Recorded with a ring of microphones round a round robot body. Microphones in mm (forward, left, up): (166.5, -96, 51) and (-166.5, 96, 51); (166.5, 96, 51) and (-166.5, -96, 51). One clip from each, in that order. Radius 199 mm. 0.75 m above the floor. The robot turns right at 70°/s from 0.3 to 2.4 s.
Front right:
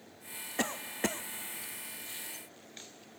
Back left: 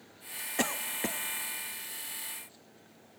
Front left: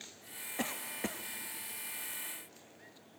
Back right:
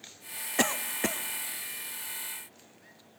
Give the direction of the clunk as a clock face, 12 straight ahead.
No clunk in this recording.